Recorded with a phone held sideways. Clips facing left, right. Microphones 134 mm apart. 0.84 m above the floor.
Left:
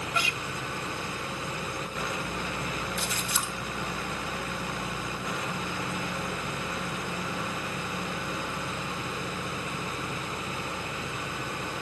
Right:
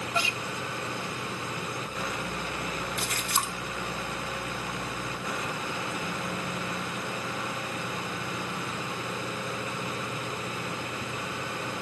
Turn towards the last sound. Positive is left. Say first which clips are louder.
# right 1 dB
turn(degrees=-70)  # may be behind; listen again after turning